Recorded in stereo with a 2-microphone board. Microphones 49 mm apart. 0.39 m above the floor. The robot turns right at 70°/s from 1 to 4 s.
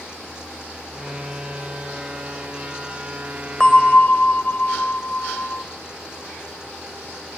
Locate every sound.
3.6 s a bell: 15° left (ahead or behind), 1.1 m; by 5.6 s 35° left (ahead or behind), 1.1 m